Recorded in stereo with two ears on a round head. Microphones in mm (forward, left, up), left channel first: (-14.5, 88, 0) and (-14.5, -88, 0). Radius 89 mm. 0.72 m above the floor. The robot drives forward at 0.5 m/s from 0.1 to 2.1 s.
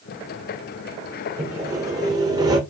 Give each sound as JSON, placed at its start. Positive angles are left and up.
{"t": 1.4, "sound": "sawing", "side_deg": -10, "distance_m": 1.2}